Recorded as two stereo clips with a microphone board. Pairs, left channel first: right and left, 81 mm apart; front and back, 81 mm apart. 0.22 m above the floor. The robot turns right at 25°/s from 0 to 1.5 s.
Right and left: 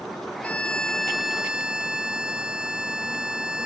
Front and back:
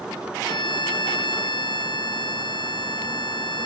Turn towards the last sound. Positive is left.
turn(degrees=10)